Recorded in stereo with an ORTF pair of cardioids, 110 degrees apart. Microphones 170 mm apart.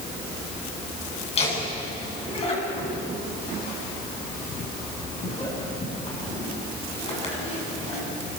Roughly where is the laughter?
Ahead left.